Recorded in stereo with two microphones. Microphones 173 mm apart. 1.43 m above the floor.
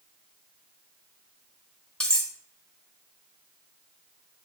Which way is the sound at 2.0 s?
5° left (ahead or behind).